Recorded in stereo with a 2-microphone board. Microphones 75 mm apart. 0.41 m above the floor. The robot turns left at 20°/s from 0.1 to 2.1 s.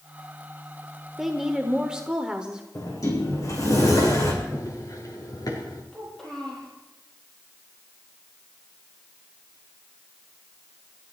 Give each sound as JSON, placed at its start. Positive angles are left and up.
{"t": 1.2, "sound": "a woman speaking", "side_deg": 0, "distance_m": 1.1}
{"t": 2.8, "sound": "a sliding door", "side_deg": 50, "distance_m": 4.0}
{"t": 4.4, "sound": "running footsteps", "side_deg": 45, "distance_m": 3.5}
{"t": 5.9, "sound": "a child speaking", "side_deg": 5, "distance_m": 6.5}